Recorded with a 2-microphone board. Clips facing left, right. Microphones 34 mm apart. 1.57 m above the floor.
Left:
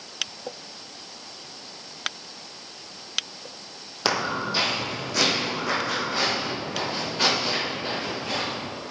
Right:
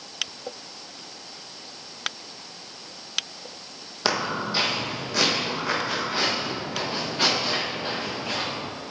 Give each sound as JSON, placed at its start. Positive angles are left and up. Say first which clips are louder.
{"t": 4.0, "sound": "footsteps", "louder": "even", "side_deg": 0, "distance_m": 1.9}